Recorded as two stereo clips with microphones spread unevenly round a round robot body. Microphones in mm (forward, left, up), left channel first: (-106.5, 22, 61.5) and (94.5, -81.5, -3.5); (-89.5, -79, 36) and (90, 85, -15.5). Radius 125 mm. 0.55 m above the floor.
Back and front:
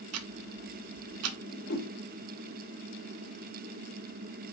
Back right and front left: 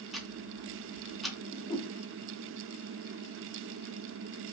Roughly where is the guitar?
I don't hear a guitar.